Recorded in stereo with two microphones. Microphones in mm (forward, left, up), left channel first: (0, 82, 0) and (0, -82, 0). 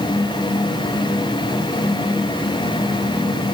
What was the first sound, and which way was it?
Only background noise.